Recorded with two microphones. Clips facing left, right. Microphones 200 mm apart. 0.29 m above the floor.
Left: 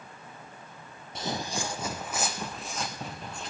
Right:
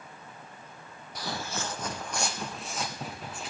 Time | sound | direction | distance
1.1 | footsteps | 25° left (ahead or behind) | 0.6 m